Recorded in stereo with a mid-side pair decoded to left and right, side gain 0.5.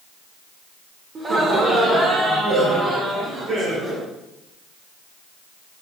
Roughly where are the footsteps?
I don't hear footsteps.